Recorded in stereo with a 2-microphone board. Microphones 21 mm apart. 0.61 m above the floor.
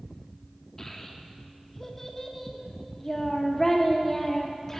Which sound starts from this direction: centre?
A child speaking, at 0.8 s.